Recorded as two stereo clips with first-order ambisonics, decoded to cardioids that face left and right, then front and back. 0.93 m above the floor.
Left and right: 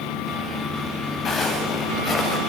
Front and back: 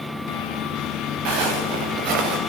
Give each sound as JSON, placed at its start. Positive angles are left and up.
{"t": 1.2, "sound": "footsteps", "azimuth_deg": 160, "distance_m": 9.0}